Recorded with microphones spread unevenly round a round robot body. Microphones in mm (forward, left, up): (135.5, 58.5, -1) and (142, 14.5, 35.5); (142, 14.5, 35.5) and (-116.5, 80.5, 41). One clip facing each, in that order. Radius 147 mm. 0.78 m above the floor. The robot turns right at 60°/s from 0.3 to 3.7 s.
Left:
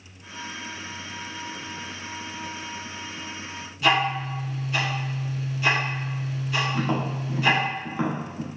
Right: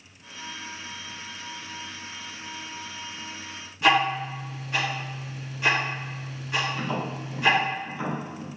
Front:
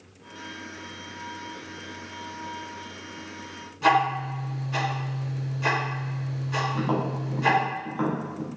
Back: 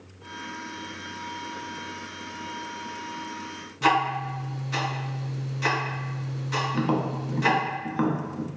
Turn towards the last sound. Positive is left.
turn(degrees=115)